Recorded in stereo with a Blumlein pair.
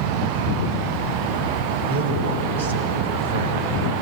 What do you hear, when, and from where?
1.9 s a man speaking: 65° right, 4.5 m